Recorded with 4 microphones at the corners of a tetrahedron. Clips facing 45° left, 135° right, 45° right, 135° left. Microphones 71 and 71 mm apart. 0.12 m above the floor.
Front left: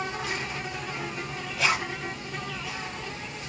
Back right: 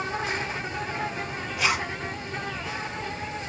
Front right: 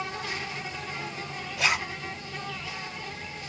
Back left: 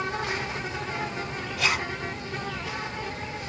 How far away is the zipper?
About 1.9 m.